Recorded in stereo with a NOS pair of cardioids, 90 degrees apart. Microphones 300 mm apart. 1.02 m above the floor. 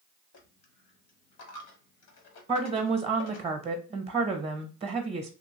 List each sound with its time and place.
0.3 s a dropped coin: 60° left, 1.1 m
2.5 s a woman speaking: 20° right, 0.8 m